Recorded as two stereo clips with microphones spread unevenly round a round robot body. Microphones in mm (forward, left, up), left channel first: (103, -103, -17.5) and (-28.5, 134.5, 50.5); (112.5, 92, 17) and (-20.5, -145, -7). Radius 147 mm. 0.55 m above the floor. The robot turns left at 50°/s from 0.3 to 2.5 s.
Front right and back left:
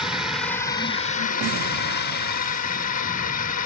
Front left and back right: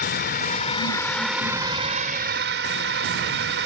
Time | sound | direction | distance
0.0 | a drone | 20° left | ?